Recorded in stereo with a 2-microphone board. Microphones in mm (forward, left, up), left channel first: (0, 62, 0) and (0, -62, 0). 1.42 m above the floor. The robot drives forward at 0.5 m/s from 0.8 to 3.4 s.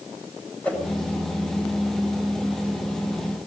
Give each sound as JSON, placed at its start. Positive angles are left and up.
{"t": 0.6, "sound": "a whoosh", "side_deg": 10, "distance_m": 8.0}